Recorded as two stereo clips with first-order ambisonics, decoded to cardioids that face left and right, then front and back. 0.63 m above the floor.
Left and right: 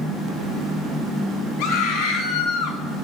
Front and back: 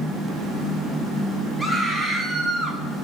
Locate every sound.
1.6 s a scream: 85° left, 5 m; by 2.8 s 75° left, 4.5 m